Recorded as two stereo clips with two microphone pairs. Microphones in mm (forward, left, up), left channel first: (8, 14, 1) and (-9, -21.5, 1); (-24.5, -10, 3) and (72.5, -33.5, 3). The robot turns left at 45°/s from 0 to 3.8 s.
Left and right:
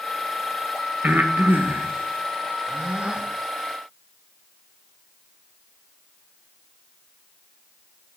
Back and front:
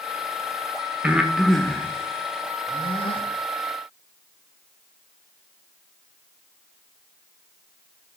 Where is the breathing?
85° right, 0.8 m; by 3.3 s 175° left, 0.8 m.